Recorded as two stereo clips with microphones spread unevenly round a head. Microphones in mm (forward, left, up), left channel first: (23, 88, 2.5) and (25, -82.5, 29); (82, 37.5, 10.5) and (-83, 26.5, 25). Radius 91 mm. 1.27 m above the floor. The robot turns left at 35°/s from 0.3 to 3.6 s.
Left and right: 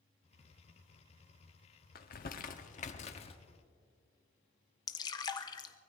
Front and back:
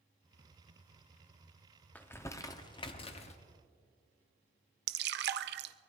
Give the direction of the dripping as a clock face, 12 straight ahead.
7 o'clock.